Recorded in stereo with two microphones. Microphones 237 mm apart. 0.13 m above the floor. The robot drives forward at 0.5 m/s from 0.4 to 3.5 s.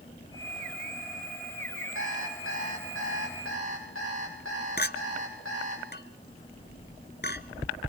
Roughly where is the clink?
Left.